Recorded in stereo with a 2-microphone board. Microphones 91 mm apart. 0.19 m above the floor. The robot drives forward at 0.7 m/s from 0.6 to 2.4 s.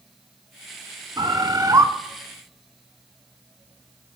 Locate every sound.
1.2 s a bird: 45° right (ahead or behind), 0.7 m; by 1.9 s 40° right (ahead or behind), 0.8 m